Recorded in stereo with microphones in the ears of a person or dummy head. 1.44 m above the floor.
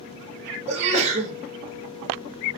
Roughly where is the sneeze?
Right.